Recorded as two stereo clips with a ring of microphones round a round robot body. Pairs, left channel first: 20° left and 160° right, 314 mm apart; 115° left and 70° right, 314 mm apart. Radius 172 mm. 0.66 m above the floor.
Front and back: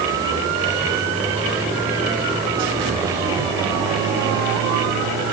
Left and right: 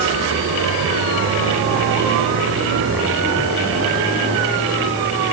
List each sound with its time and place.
Only background noise.